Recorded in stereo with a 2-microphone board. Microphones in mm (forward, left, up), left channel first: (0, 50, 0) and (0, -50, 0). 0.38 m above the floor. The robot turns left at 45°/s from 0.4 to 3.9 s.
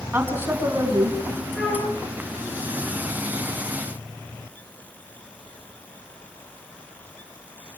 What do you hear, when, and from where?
0.1 s a woman speaking: 20° right, 4 m; by 1.2 s 55° right, 4 m
1.6 s a flute: 5° left (ahead or behind), 8.5 m; by 1.9 s 10° right (ahead or behind), 8.5 m